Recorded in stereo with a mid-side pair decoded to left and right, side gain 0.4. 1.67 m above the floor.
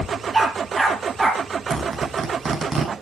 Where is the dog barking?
30° right, 9.5 m.